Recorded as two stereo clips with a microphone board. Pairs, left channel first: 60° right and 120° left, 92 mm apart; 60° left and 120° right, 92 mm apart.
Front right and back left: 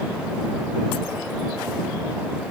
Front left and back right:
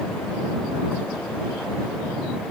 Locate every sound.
Only background noise.